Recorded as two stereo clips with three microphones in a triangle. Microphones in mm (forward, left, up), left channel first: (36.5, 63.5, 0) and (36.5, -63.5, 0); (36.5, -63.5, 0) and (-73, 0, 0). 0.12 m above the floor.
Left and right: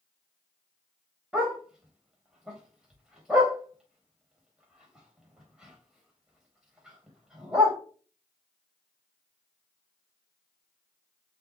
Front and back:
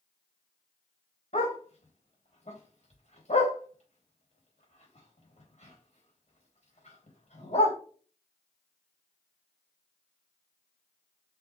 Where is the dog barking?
5° right, 4 m.